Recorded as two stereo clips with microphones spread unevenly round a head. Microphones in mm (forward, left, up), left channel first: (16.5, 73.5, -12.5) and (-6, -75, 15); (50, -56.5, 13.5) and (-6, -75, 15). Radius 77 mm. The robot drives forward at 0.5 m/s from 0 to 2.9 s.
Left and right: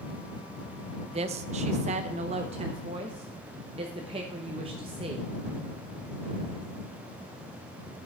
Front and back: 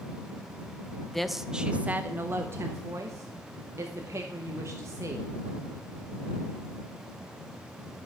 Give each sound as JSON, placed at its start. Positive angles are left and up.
{"t": 1.1, "sound": "a woman speaking", "azimuth_deg": -60, "distance_m": 0.7}